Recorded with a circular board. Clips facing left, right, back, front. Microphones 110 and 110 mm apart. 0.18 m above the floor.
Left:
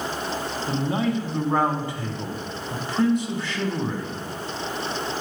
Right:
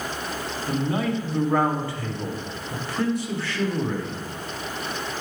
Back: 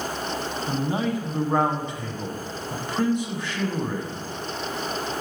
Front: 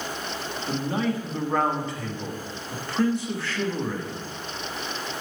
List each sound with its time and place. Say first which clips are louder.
0.7 s a man speaking: even, even; 130° left, 1.1 m